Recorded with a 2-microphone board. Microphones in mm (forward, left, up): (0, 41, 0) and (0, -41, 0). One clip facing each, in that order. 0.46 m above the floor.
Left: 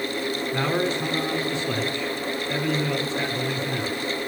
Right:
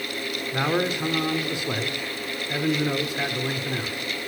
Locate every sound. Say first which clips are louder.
0.5 s a man speaking: right 1 dB; 15° right (ahead or behind), 1.1 m